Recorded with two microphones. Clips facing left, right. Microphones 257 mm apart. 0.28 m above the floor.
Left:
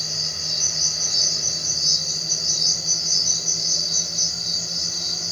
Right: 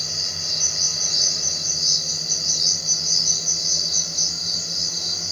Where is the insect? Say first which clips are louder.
Even; 5° right (ahead or behind), 5 m.